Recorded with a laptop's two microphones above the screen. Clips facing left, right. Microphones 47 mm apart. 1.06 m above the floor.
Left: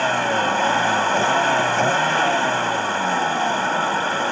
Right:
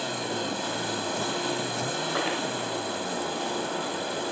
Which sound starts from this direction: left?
A vehicle, at 0.0 s.